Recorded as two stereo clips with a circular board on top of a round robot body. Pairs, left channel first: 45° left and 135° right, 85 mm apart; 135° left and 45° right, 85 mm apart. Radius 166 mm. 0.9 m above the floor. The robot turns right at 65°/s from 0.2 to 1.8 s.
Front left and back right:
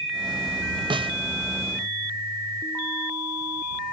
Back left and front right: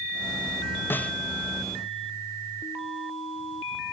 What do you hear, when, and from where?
0.9 s a snare drum: 160° right; by 1.2 s 145° right